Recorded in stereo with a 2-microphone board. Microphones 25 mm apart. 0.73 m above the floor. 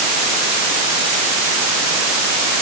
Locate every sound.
Only background noise.